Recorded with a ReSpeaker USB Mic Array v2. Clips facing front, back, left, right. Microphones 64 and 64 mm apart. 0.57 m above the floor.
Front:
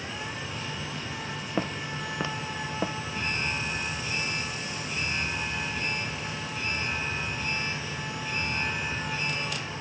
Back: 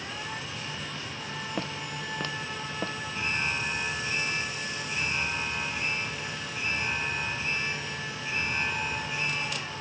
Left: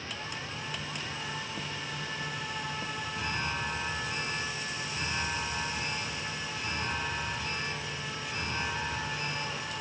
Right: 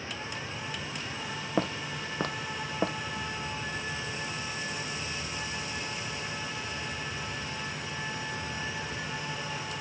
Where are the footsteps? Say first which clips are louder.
Front 6 dB, right 6 dB; 75° right.